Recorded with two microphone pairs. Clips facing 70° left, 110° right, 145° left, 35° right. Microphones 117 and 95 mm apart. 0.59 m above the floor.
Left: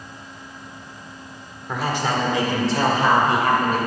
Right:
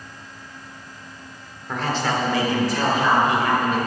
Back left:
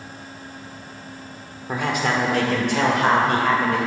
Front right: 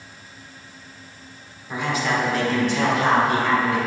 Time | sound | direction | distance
1.7 | a man speaking | 155° left | 1.6 m